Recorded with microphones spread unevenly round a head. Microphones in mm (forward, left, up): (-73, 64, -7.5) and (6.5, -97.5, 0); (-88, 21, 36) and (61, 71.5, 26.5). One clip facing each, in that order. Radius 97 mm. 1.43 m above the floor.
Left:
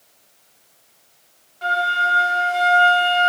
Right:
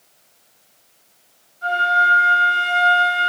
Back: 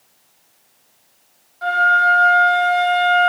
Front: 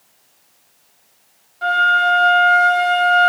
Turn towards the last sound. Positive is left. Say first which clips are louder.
# right 2 dB, even
turn(degrees=85)